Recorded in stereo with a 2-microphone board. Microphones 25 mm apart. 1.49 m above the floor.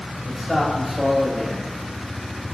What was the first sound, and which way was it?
A man speaking, 5° left (ahead or behind).